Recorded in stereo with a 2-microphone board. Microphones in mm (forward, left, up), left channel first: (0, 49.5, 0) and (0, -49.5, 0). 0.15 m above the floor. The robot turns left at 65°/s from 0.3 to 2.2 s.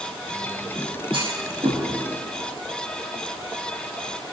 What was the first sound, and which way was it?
A clunk, 65° right (ahead or behind).